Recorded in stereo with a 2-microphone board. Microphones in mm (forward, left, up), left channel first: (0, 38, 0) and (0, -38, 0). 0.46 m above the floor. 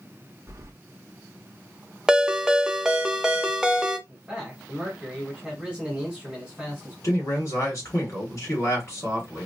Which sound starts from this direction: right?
Keys jangling, at 0.5 s.